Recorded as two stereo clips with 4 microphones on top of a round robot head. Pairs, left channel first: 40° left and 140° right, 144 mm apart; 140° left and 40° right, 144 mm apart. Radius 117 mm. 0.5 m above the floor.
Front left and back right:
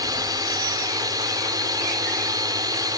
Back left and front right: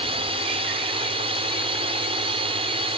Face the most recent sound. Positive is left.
turn(degrees=-80)